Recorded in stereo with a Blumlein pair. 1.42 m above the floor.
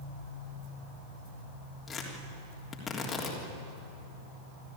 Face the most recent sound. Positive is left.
turn(degrees=15)